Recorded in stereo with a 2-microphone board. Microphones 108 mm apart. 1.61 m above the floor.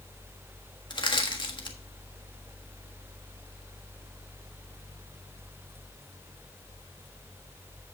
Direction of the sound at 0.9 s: 50° left (ahead or behind).